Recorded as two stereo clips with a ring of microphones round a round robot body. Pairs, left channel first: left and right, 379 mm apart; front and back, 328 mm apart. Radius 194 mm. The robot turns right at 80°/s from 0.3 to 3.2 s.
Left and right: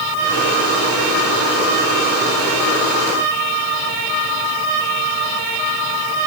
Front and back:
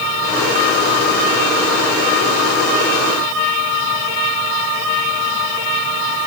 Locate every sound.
Only background noise.